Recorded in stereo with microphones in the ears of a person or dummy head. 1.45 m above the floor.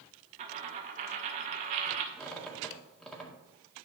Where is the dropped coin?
35° right (ahead or behind), 0.9 m.